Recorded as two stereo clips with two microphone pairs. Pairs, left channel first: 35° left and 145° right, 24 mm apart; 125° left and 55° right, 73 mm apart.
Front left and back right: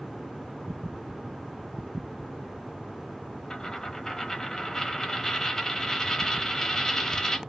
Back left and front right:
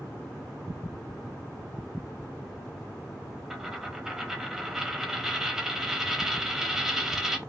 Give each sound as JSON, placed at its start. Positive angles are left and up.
{"t": 3.5, "sound": "a dropped coin", "azimuth_deg": 15, "distance_m": 0.9}